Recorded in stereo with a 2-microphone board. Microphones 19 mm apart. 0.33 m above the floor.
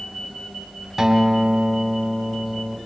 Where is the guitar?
20° right (ahead or behind), 2 m.